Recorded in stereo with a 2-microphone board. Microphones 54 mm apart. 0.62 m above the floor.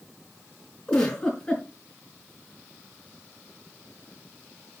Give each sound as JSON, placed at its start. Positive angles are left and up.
{"t": 0.9, "sound": "a giggle", "side_deg": 15, "distance_m": 5.5}